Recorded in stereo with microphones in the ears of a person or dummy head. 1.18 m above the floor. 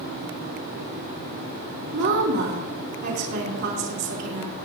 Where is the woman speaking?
60° right (ahead or behind), 2.5 m.